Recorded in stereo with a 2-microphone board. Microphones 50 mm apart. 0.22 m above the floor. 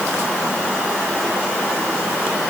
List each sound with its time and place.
Only background noise.